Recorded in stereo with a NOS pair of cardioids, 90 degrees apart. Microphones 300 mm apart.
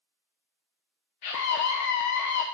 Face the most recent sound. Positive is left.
turn(degrees=65)